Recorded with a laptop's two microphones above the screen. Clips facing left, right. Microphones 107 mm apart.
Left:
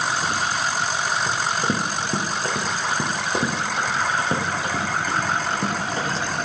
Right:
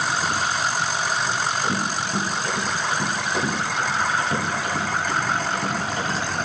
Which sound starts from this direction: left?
Running footsteps, at 1.3 s.